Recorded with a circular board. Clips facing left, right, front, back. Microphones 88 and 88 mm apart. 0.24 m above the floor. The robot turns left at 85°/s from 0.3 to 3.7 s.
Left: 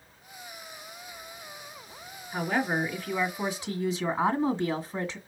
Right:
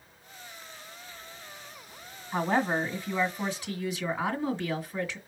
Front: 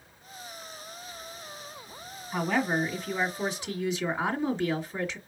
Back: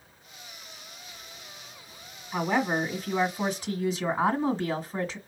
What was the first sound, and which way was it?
A woman speaking, 95° right.